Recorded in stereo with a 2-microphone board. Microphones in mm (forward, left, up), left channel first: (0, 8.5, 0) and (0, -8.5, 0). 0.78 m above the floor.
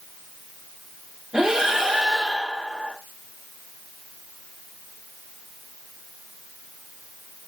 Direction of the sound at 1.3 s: 45° right (ahead or behind).